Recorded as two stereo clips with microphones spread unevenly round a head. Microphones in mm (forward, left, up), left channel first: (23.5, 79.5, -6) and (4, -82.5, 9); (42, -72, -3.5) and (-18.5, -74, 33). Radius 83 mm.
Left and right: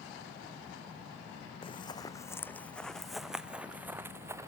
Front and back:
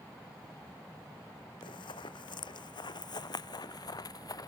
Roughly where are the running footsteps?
Ahead left.